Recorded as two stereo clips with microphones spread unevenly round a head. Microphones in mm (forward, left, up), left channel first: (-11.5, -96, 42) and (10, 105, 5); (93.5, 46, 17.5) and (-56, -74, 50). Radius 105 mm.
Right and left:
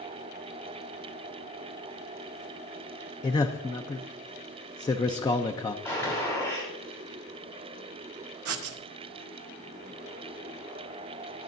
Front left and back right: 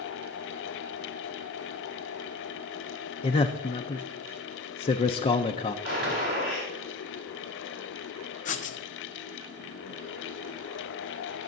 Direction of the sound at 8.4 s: 90° left.